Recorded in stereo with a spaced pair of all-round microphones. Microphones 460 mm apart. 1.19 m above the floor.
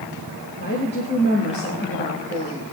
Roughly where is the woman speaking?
Left.